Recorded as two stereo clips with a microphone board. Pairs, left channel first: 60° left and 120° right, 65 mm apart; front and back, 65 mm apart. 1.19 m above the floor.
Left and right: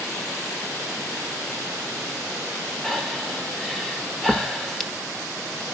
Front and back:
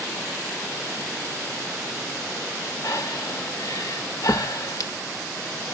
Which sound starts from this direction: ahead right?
Breathing, at 2.8 s.